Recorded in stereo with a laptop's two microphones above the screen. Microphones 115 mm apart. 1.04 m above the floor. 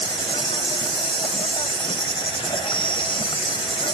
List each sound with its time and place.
0.0 s an insect: 50° left (ahead or behind)